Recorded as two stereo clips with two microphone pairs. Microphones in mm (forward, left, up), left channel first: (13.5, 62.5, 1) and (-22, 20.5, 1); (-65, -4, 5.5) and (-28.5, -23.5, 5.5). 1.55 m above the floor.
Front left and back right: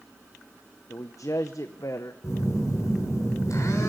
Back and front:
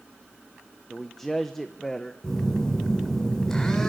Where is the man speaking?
75° left, 1.0 m.